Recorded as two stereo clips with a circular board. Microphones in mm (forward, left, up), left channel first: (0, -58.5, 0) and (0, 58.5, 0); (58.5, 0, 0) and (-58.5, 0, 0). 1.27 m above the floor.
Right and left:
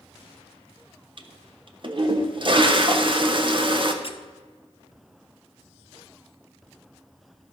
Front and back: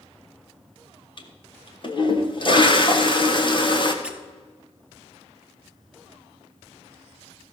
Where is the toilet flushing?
45° left, 1.1 m.